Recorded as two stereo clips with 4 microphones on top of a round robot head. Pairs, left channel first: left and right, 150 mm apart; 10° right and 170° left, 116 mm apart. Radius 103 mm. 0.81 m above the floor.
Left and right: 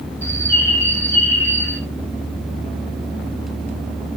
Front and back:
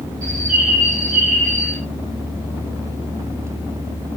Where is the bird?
160° left, 8.5 m.